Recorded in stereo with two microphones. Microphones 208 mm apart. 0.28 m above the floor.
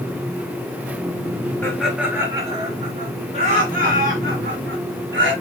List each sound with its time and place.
1.6 s laughter: 10° left (ahead or behind), 1.4 m; by 5.3 s 70° right (ahead or behind), 4 m